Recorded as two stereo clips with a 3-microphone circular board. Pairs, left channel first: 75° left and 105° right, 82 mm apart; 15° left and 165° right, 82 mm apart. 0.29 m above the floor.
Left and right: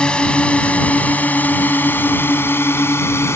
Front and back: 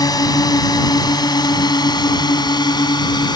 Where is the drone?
Straight ahead; by 3.4 s 20° left.